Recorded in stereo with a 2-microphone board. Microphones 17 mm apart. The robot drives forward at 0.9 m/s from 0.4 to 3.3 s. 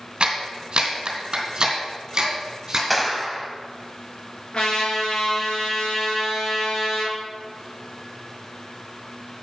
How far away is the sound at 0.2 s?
About 2 m.